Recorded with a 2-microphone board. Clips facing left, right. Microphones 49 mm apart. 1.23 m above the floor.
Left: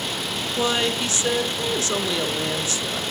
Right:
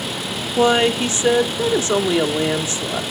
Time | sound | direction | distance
0.6 | a woman speaking | 25° right (ahead or behind) | 1.0 m